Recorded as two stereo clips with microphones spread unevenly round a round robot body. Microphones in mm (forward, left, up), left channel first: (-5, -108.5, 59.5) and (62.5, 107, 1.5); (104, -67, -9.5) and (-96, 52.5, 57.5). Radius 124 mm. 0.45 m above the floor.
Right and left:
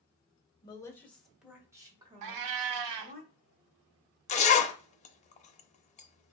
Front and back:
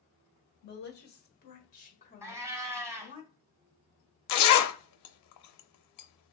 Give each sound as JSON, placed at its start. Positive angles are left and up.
{"t": 0.6, "sound": "a woman speaking", "azimuth_deg": -30, "distance_m": 1.3}
{"t": 2.2, "sound": "a cat meowing", "azimuth_deg": 75, "distance_m": 0.5}
{"t": 4.3, "sound": "a zipper", "azimuth_deg": -45, "distance_m": 0.5}